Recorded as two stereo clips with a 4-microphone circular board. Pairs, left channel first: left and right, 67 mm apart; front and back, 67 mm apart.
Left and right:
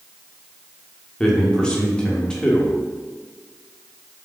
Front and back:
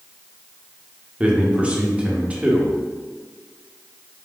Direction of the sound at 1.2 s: 140° left.